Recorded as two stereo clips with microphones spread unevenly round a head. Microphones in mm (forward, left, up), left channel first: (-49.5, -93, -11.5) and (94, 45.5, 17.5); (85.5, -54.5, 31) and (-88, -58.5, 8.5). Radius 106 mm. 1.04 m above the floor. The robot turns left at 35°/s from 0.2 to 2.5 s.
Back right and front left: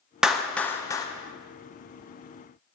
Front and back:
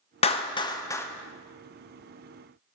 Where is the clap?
50° right, 0.5 m; by 1.1 s 80° right, 0.5 m.